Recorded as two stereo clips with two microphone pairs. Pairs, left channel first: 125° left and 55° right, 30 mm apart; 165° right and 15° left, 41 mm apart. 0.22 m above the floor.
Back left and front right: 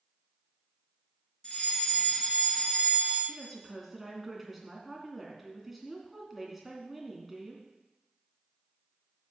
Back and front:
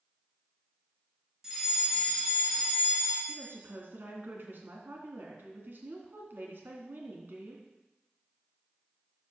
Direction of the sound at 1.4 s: 85° left.